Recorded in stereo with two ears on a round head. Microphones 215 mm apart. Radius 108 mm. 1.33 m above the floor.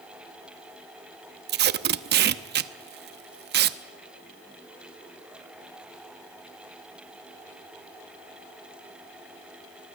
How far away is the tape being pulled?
About 0.9 m.